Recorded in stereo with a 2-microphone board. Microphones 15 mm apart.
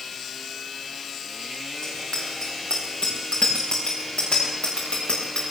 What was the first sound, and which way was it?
A bicycle bell, 60° left (ahead or behind).